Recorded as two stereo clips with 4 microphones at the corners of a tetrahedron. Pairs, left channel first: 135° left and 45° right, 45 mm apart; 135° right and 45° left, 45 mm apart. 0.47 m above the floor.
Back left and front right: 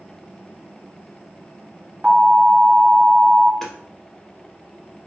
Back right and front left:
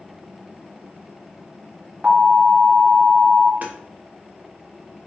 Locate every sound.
2.0 s an alarm: 10° right, 1.8 m
3.6 s hammering: 60° left, 1.0 m